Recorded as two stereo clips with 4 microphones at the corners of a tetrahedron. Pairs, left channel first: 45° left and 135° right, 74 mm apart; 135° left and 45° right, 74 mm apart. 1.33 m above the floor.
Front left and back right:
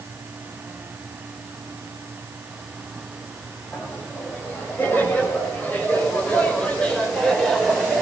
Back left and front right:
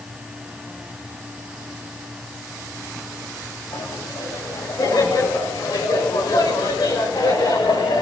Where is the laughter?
105° left, 8.5 m; by 8.0 s 135° left, 5.5 m.